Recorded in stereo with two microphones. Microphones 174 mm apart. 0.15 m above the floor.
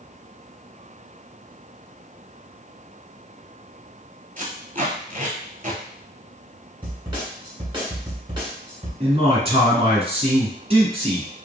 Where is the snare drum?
30° right (ahead or behind), 1.5 m.